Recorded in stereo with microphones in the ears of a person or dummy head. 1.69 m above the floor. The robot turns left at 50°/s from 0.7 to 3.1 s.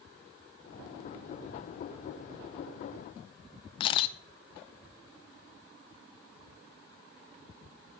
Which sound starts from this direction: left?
A camera shutter, at 3.8 s.